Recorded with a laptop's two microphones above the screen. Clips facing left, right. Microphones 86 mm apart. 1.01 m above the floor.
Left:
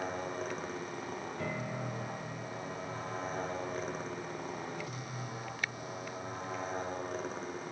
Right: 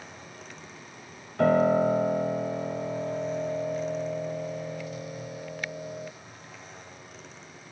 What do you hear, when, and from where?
0.0 s a motorcycle: 45° left (ahead or behind)
1.4 s a piano: 75° right (ahead or behind)